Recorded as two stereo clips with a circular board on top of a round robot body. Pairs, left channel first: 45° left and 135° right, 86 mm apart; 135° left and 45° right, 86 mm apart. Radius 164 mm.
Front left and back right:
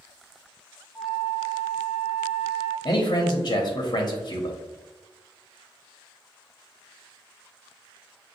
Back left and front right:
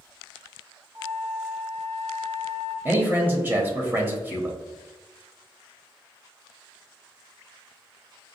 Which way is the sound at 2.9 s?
20° left.